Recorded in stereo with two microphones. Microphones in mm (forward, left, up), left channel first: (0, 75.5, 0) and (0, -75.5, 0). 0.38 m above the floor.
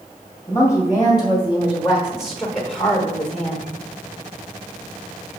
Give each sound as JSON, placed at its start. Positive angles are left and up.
{"t": 0.5, "sound": "a woman speaking", "side_deg": -10, "distance_m": 1.8}